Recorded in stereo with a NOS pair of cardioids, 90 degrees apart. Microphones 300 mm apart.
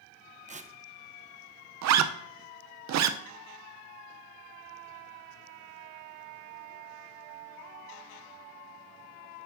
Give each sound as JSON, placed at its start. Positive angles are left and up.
{"t": 0.5, "sound": "tearing paper", "azimuth_deg": -25, "distance_m": 0.7}
{"t": 1.8, "sound": "a zipper", "azimuth_deg": -60, "distance_m": 0.6}